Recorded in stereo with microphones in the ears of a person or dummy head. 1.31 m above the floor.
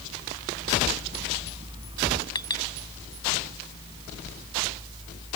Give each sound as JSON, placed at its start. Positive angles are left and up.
{"t": 2.4, "sound": "a clink", "side_deg": 20}